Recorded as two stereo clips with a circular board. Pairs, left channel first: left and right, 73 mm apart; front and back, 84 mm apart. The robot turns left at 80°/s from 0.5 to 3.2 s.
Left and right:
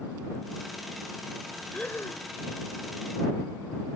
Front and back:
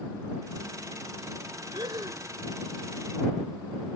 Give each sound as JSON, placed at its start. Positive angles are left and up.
{"t": 1.7, "sound": "breathing", "azimuth_deg": 165}